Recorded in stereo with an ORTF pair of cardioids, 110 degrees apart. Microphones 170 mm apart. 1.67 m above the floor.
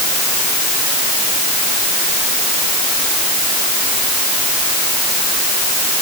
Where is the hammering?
I don't hear hammering.